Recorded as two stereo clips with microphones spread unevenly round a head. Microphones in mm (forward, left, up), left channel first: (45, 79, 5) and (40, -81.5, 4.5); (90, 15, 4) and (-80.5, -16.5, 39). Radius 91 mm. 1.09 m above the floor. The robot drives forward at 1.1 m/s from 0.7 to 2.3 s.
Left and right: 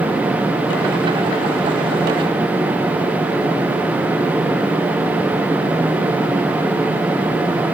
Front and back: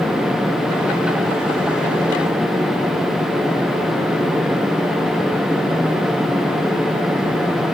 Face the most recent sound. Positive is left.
No sound to turn to.